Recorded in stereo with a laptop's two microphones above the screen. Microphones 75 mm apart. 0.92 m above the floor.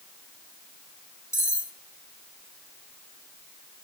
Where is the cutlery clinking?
40° left (ahead or behind), 1.4 m.